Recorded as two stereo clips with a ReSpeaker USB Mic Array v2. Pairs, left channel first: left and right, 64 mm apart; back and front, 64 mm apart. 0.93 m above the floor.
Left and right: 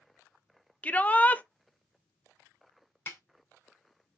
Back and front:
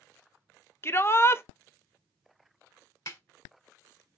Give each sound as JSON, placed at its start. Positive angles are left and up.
{"t": 0.8, "sound": "a shout", "azimuth_deg": 150, "distance_m": 0.6}
{"t": 3.1, "sound": "a snare drum", "azimuth_deg": 150, "distance_m": 1.6}